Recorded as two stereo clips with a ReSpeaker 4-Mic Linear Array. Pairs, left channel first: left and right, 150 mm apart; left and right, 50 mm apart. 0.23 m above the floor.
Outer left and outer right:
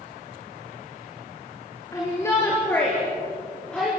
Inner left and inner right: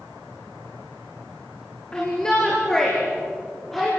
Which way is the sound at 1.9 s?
20° left (ahead or behind).